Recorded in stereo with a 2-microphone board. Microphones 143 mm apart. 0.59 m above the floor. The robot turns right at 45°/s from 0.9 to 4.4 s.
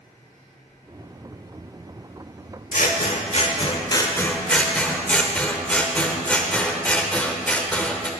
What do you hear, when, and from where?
2.7 s scissors: 95° left, 1.1 m; by 8.1 s 170° left, 1.1 m